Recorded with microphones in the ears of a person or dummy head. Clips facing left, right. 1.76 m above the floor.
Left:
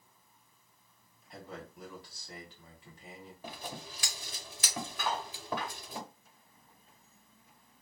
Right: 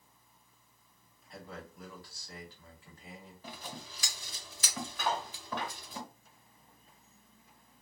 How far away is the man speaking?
About 1.0 m.